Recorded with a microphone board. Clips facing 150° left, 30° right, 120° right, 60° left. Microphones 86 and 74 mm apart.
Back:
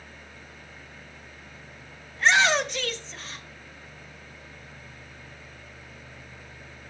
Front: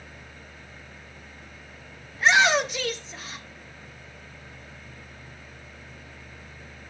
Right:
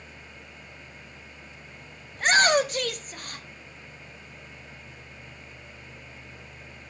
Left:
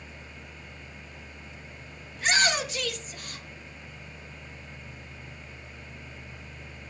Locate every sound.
2.1 s a shout: 115° right, 0.7 m